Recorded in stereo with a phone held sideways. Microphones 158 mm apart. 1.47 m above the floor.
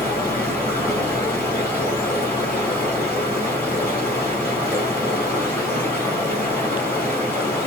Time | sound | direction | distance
0.0 | running water | 15° left (ahead or behind) | 3.5 m